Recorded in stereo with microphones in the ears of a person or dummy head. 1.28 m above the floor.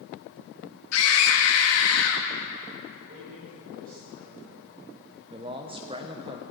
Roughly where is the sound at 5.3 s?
Right.